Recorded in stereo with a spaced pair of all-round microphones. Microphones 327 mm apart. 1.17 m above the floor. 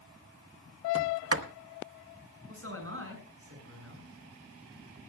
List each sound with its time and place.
0.9 s a sliding door: 45° right (ahead or behind), 0.8 m
2.5 s a man speaking: 40° right (ahead or behind), 6 m